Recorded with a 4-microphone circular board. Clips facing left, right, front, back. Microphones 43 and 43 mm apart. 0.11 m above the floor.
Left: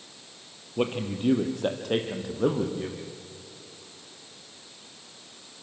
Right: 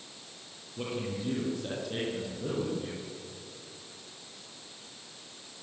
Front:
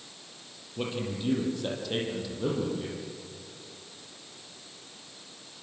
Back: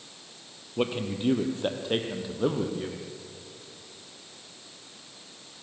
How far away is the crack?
I don't hear a crack.